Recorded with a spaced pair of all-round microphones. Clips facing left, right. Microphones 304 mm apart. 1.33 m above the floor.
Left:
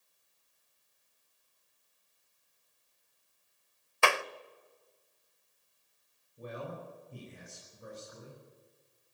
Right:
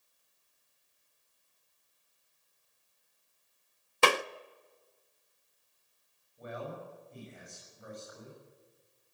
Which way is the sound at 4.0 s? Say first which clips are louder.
Right 3 dB; 45° right (ahead or behind).